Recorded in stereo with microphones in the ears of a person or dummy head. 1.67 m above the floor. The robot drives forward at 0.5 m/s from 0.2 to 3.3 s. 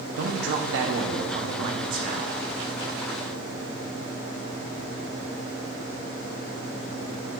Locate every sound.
0.2 s a man speaking: 65° right (ahead or behind), 0.9 m; by 2.4 s 40° right (ahead or behind), 1.3 m